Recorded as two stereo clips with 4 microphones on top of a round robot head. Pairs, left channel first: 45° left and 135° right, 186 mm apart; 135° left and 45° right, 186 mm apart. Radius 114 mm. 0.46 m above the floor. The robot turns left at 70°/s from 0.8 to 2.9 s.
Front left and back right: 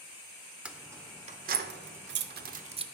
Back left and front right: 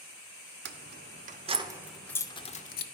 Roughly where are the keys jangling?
Ahead right.